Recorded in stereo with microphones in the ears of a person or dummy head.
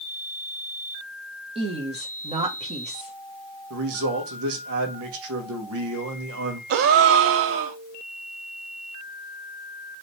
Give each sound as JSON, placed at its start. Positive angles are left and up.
{"t": 1.6, "sound": "a woman speaking", "side_deg": -30, "distance_m": 1.2}
{"t": 3.7, "sound": "a man speaking", "side_deg": -75, "distance_m": 1.4}
{"t": 6.7, "sound": "a gasp", "side_deg": -60, "distance_m": 0.6}